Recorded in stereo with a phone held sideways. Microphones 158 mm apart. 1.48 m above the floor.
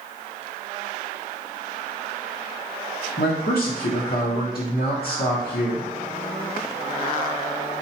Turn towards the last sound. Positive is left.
turn(degrees=85)